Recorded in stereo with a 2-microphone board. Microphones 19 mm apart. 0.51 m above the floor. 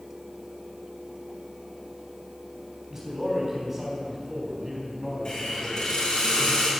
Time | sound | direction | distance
2.9 | a man speaking | 25° right (ahead or behind) | 3.5 m
5.2 | a hiss | 45° left (ahead or behind) | 4.5 m